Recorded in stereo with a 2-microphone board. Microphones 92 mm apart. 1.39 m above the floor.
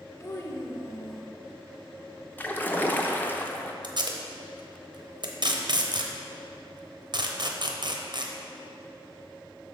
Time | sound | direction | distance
0.2 | a child speaking | 30° left (ahead or behind) | 0.9 m
2.4 | a splash | 20° left (ahead or behind) | 0.5 m
3.8 | tape being pulled | 55° right (ahead or behind) | 0.7 m